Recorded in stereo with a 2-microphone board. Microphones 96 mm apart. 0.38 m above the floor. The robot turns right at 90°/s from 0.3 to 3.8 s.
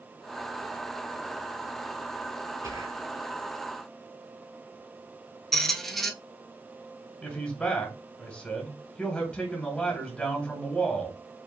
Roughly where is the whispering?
Right.